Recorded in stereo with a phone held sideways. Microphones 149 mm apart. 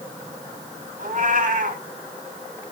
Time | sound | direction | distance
1.0 | a cat meowing | 65° right (ahead or behind) | 3 m